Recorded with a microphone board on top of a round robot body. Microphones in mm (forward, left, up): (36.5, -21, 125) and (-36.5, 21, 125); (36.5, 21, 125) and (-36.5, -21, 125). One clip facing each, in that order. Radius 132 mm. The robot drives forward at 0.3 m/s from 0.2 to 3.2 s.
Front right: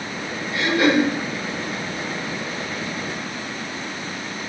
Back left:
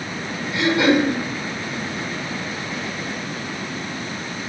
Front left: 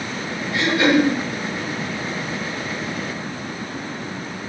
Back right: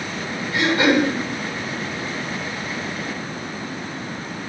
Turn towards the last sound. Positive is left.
turn(degrees=170)